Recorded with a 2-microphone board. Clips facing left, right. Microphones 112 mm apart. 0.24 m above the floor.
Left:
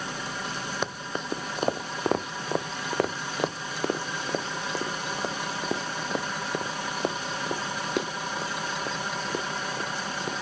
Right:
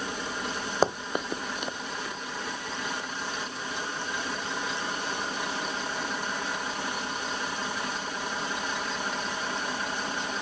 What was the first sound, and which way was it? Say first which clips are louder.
Running footsteps: right 10 dB; 35° right (ahead or behind).